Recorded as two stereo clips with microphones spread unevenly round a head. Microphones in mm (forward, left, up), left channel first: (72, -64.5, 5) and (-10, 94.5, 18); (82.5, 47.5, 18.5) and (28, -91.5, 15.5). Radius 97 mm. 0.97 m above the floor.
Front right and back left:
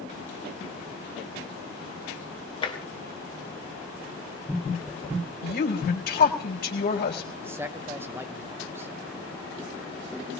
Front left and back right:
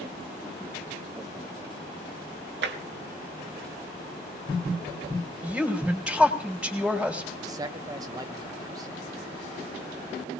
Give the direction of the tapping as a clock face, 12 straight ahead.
4 o'clock.